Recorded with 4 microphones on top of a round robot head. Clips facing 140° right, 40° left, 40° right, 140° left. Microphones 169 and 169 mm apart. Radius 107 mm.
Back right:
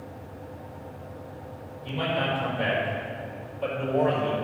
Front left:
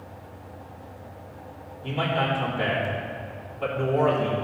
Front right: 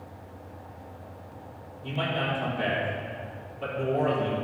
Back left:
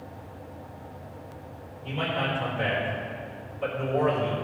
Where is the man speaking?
5° left, 3.5 m.